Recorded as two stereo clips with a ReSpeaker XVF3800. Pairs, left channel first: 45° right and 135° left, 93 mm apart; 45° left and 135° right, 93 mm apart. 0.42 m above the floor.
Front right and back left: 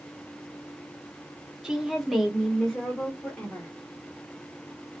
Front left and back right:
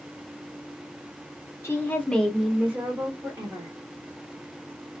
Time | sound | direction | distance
1.6 | a woman speaking | 60° left | 1.0 m